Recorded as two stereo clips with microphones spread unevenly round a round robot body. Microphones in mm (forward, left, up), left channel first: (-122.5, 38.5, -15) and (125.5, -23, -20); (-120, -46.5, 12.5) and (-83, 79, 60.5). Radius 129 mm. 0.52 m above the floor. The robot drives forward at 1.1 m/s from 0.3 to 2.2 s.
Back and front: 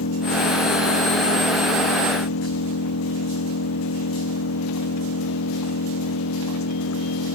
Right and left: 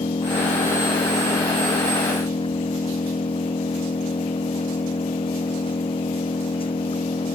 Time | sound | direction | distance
0.0 | an engine running | 150° right | ?